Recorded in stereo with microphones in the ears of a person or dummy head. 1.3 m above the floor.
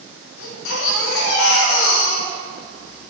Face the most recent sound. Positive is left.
turn(degrees=80)